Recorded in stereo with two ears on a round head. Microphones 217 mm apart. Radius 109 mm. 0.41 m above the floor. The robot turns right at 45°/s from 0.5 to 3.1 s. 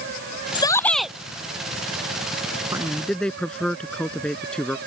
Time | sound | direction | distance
0.6 | a shout | 20° left (ahead or behind) | ?
2.7 | a man speaking | 15° right (ahead or behind) | ?